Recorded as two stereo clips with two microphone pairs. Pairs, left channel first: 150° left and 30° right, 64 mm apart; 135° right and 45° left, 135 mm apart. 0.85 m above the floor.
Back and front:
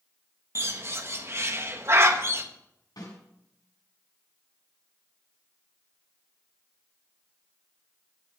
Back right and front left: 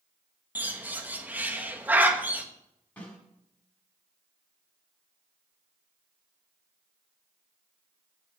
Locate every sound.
0.6 s a bird: 25° right, 1.3 m
3.0 s a snare drum: 145° left, 6 m